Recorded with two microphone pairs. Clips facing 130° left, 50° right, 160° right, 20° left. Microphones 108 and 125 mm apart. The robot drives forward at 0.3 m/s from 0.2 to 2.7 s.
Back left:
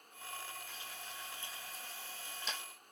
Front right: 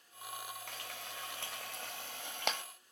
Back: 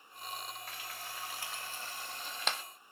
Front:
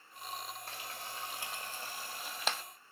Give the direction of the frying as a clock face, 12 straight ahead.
1 o'clock.